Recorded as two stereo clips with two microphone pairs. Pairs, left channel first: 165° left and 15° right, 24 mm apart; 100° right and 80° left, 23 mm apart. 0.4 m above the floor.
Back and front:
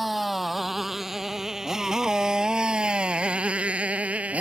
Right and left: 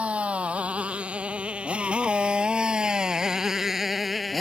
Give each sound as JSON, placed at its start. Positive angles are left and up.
{"t": 0.0, "sound": "a motorcycle", "azimuth_deg": 65}